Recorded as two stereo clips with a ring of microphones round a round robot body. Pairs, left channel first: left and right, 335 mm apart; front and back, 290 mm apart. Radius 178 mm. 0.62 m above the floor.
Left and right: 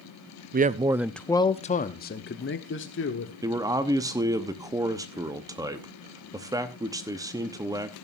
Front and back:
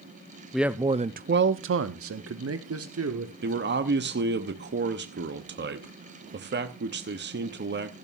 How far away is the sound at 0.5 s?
About 0.6 m.